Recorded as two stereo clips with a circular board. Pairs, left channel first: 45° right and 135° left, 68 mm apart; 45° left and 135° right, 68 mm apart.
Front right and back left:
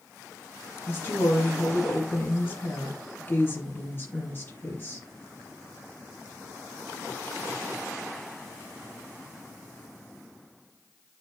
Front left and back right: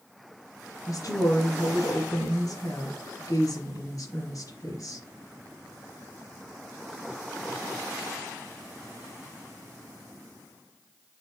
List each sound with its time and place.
0.9 s a woman speaking: 10° left, 4 m